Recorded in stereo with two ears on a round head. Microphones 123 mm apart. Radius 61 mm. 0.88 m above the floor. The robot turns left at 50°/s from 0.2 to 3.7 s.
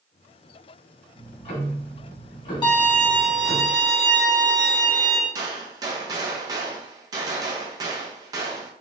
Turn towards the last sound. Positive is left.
turn(degrees=-25)  # may be behind; listen again after turning